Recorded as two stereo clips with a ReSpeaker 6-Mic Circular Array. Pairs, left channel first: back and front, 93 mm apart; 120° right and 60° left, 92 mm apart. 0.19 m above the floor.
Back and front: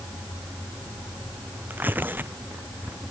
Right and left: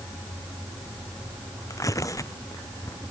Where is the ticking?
No ticking in this recording.